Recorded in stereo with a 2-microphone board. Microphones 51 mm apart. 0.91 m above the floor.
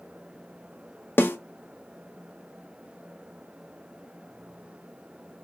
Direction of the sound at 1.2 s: 40° left (ahead or behind).